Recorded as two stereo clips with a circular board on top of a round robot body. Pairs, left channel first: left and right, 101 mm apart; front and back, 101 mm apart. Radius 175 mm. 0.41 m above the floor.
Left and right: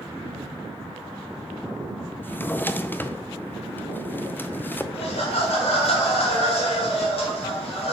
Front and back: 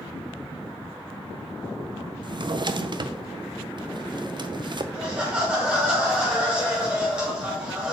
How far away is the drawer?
About 0.6 m.